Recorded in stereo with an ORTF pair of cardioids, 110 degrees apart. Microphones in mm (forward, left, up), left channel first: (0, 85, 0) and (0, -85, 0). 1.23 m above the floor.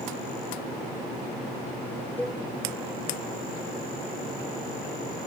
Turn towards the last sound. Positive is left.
turn(degrees=10)